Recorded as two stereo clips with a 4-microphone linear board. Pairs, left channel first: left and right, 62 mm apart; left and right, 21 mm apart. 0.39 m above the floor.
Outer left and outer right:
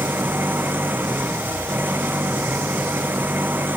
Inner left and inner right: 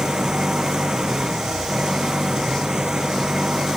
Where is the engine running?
30° right (ahead or behind).